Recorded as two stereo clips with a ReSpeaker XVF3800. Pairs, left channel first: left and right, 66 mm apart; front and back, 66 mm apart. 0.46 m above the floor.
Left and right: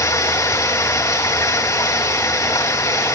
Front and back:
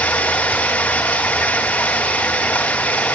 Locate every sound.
0.0 s running water: 60° left, 3 m